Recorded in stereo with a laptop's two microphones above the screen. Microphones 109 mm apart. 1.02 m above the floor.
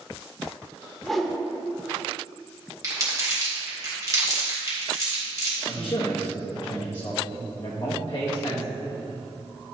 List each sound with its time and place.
1.0 s a whoosh: centre (ahead or behind), 0.8 m
2.8 s crumpling: 35° right (ahead or behind), 2 m
5.7 s a man speaking: 45° left (ahead or behind), 1.5 m